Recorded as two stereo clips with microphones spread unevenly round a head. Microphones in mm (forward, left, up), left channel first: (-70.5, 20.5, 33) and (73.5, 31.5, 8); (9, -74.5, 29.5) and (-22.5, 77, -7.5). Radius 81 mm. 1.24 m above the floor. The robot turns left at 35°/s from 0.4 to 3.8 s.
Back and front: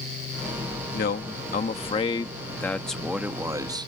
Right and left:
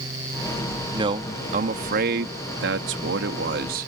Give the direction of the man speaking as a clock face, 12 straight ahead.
6 o'clock.